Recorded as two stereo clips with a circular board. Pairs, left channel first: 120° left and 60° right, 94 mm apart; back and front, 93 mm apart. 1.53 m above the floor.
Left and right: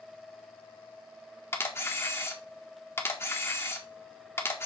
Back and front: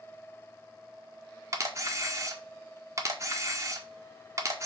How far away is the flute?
No flute in this recording.